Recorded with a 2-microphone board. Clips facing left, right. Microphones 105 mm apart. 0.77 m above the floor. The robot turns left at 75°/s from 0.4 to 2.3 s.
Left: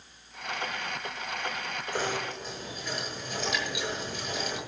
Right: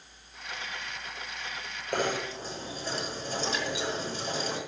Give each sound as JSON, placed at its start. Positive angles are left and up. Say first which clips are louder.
{"t": 1.9, "sound": "knocking", "louder": "right 3 dB", "side_deg": -65, "distance_m": 9.5}